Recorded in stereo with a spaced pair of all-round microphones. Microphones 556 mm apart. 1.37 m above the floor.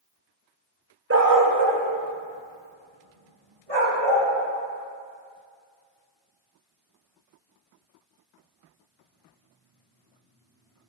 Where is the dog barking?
25° right (ahead or behind), 0.8 m; by 4.3 s 70° right (ahead or behind), 3 m.